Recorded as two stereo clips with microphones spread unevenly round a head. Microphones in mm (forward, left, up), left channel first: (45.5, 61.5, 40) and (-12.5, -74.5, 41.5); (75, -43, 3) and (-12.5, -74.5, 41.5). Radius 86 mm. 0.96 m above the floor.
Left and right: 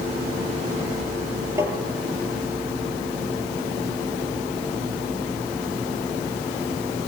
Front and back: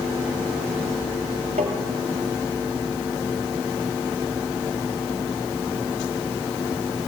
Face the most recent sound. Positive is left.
turn(degrees=175)